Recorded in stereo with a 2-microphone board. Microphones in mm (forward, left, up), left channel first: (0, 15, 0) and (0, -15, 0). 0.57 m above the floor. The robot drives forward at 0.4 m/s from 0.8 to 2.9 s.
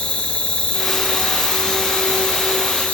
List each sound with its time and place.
0.0 s an insect: 45° left (ahead or behind), 1.7 m; by 3.0 s 60° left (ahead or behind), 1.3 m